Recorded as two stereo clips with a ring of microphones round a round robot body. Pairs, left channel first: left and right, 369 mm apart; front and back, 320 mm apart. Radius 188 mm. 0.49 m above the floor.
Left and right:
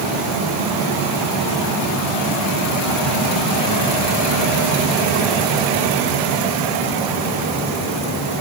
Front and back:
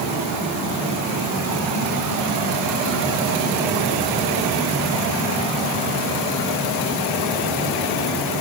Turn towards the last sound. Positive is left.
No sound to turn to.